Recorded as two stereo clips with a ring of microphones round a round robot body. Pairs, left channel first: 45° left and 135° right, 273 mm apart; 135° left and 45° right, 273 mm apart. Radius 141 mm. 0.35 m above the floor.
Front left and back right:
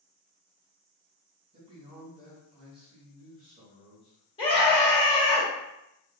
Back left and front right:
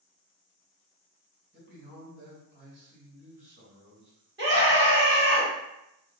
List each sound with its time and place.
1.5 s a man speaking: 75° right, 1.7 m
4.4 s a scream: 15° right, 1.8 m